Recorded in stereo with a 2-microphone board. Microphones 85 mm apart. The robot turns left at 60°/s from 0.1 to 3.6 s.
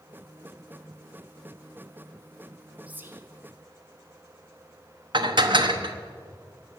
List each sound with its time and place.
2.9 s whispering: 15° right (ahead or behind), 1.4 m; by 3.2 s 35° right (ahead or behind), 1.4 m
5.1 s dishes clattering: 65° right (ahead or behind), 1.0 m